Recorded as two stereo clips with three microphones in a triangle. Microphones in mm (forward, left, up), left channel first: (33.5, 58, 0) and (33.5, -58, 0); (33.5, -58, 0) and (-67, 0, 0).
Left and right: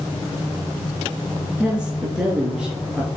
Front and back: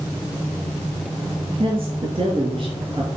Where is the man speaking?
170° right, 3 m.